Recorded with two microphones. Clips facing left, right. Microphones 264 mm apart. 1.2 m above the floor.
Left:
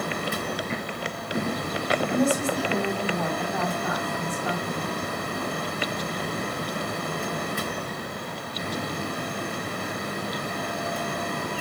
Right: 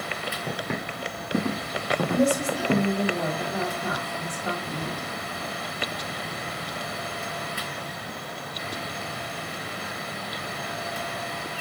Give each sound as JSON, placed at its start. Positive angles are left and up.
{"t": 0.5, "sound": "footsteps", "side_deg": -70, "distance_m": 3.5}
{"t": 2.1, "sound": "a woman speaking", "side_deg": -30, "distance_m": 3.0}